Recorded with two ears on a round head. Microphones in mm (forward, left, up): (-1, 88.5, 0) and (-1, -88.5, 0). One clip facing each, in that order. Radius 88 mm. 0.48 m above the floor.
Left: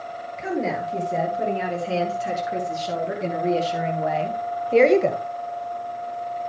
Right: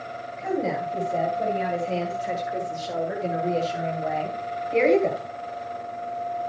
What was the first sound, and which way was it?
A woman speaking, 85° left.